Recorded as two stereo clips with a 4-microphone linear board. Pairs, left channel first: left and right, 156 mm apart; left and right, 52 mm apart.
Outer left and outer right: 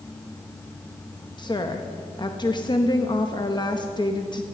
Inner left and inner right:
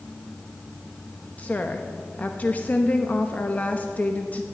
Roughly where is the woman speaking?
Left.